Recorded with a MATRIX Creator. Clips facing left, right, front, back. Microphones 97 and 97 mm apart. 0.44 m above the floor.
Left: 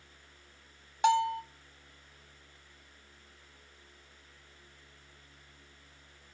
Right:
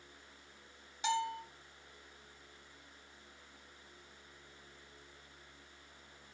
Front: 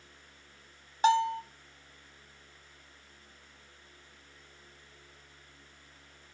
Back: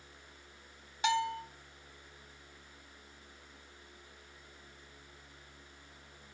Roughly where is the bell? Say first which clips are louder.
Left 9 dB, front 7 dB; ahead left.